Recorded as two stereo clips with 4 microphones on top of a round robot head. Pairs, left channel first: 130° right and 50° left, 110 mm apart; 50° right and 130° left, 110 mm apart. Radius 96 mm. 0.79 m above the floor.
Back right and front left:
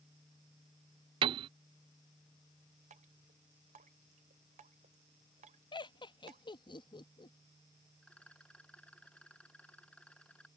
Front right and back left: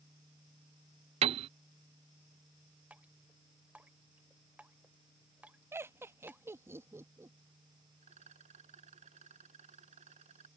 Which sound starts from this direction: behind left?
A rattle, at 8.0 s.